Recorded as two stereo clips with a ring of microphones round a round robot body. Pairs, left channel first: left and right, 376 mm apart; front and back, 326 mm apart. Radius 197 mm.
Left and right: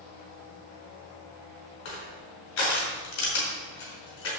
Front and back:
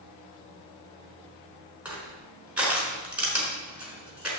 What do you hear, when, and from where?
1.9 s crushing: 95° left, 4.5 m